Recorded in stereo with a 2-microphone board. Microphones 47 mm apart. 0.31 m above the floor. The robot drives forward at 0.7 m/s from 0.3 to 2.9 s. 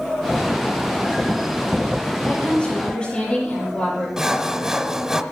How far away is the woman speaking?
About 6.5 m.